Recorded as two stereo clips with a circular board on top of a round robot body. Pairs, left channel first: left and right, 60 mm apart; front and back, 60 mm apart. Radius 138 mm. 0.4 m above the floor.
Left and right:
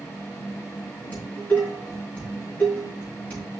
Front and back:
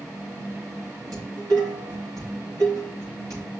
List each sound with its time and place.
1.1 s dishes clattering: 150° left, 6 m